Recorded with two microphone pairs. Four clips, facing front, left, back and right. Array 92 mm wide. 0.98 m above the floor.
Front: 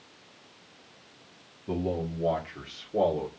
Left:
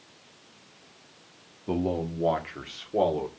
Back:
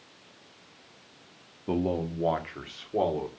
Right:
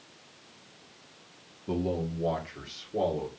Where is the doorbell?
No doorbell in this recording.